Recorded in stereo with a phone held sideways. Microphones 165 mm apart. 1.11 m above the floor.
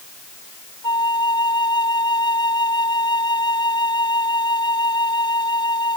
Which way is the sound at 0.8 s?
25° left (ahead or behind).